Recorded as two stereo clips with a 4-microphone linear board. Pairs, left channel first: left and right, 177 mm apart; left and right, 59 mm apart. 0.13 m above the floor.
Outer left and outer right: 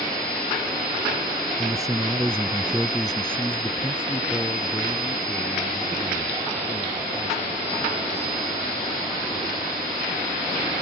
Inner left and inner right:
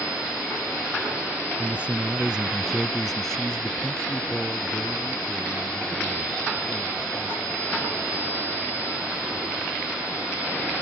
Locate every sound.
1.6 s a man speaking: 20° right (ahead or behind); by 8.3 s 20° left (ahead or behind)